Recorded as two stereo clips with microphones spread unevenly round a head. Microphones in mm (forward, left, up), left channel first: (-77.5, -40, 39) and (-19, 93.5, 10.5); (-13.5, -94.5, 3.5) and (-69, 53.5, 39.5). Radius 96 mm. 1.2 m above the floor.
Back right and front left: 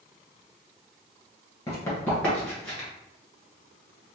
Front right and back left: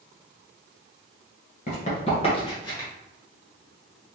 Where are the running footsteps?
85° right, 1.3 m; by 2.9 s 145° right, 1.1 m.